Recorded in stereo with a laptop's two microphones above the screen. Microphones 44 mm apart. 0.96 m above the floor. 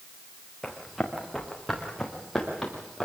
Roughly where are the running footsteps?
Centre.